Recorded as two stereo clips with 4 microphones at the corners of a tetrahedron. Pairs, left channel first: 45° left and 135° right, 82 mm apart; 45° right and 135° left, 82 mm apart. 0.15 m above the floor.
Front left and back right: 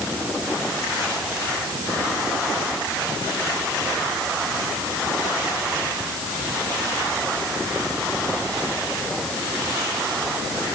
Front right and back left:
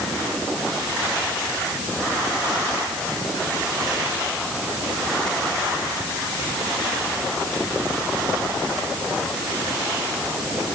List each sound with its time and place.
Only background noise.